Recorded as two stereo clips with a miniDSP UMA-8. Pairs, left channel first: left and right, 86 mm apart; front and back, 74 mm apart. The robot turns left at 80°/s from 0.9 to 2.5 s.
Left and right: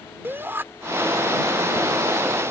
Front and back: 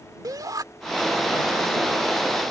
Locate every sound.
0.2 s a shout: 150° right